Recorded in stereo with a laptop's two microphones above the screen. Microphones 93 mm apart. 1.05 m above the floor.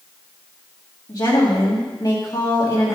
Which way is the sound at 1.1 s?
50° left (ahead or behind).